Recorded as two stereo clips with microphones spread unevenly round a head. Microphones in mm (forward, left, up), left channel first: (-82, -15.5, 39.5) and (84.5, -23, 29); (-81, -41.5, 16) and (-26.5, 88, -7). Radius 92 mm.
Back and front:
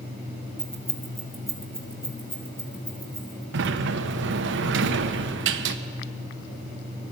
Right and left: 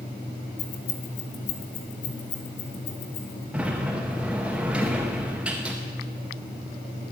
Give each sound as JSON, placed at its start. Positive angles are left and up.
{"t": 0.6, "sound": "keys jangling", "azimuth_deg": -90, "distance_m": 1.3}
{"t": 3.5, "sound": "a sliding door", "azimuth_deg": -15, "distance_m": 0.6}